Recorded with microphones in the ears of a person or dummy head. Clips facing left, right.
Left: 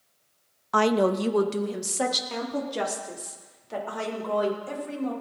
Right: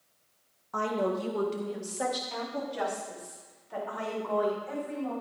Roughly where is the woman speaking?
Left.